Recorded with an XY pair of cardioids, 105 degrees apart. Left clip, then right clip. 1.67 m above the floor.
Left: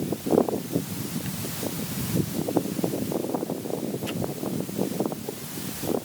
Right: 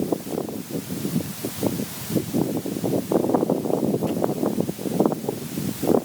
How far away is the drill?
I don't hear a drill.